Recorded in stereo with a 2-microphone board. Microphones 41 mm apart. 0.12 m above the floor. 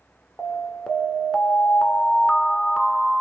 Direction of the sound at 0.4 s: 15° left (ahead or behind).